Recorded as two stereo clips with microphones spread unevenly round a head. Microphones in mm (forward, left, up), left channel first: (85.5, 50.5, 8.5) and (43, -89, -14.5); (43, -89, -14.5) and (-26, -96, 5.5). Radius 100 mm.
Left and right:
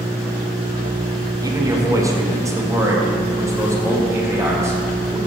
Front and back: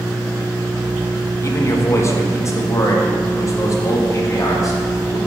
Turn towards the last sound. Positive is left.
turn(degrees=-35)